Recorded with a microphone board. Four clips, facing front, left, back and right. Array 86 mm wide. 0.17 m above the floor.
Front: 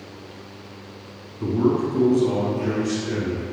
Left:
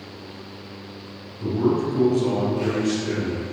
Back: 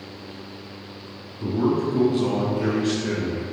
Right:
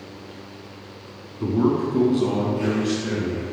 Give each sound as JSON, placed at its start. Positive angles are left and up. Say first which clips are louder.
{"t": 1.4, "sound": "a man speaking", "louder": "right 1 dB, front 2 dB", "azimuth_deg": -60, "distance_m": 1.5}